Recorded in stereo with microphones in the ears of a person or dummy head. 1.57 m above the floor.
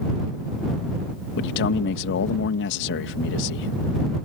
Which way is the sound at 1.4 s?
65° left (ahead or behind).